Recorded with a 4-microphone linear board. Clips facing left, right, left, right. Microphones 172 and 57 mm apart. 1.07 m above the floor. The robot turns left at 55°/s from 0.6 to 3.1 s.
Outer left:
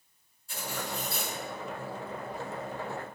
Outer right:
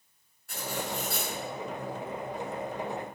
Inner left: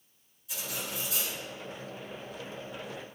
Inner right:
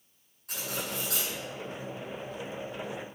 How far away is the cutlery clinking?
About 8.5 m.